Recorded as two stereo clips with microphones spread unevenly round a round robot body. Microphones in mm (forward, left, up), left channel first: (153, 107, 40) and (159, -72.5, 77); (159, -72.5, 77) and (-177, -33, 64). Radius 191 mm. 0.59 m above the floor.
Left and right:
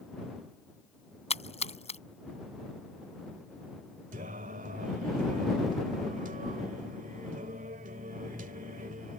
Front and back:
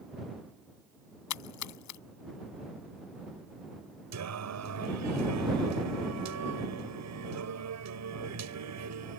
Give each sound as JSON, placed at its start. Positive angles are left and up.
{"t": 1.3, "sound": "a splash", "azimuth_deg": 35}
{"t": 4.1, "sound": "singing", "azimuth_deg": -150}